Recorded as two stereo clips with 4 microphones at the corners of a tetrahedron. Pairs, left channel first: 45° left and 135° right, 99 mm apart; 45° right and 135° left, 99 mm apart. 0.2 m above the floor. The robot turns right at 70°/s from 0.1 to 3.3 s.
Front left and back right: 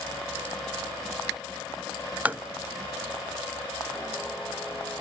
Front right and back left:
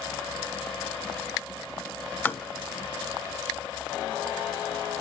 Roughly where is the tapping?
Right.